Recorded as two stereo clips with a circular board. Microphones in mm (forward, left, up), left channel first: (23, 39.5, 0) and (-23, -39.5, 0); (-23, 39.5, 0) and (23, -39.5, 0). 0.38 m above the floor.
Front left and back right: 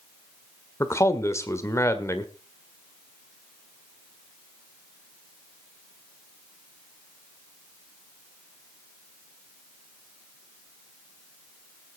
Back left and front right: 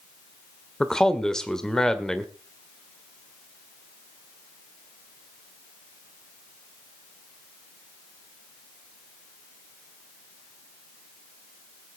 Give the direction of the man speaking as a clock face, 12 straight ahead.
11 o'clock.